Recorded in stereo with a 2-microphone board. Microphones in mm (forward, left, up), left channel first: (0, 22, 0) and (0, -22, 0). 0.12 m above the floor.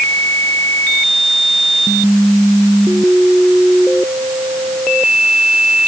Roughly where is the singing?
I don't hear singing.